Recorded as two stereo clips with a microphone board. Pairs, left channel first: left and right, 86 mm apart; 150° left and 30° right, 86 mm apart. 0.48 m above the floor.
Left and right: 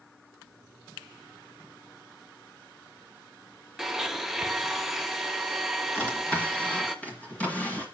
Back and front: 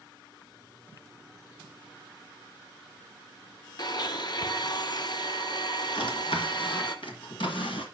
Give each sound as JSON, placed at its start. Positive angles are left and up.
{"t": 3.8, "sound": "a blender", "azimuth_deg": 180, "distance_m": 0.7}
{"t": 6.0, "sound": "a drawer", "azimuth_deg": 165, "distance_m": 1.6}